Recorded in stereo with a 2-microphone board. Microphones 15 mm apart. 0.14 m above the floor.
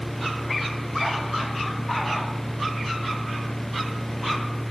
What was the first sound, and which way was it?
Only background noise.